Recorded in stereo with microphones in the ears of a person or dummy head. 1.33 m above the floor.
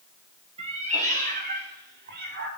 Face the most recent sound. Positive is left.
turn(degrees=-60)  # may be behind; listen again after turning